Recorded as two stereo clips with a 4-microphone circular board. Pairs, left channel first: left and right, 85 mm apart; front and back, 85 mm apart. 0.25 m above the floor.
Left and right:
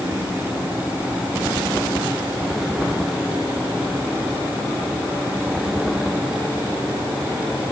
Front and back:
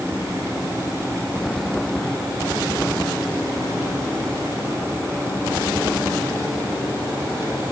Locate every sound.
Only background noise.